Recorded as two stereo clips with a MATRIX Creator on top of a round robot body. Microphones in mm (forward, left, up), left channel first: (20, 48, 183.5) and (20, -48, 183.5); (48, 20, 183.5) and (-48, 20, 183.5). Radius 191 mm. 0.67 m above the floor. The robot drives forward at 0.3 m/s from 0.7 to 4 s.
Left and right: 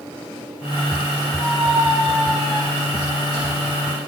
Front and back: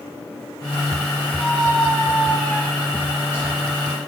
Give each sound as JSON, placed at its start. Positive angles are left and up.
{"t": 1.4, "sound": "a squeak", "azimuth_deg": -110, "distance_m": 2.0}